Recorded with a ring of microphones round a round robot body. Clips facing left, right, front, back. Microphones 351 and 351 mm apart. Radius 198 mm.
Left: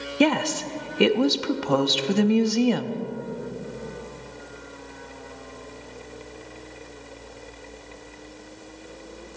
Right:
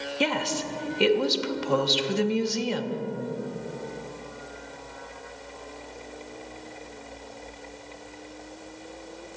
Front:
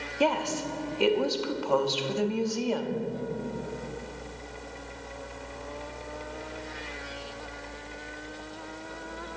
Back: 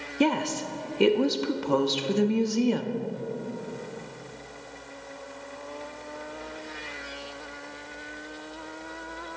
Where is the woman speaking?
120° left, 1.0 m.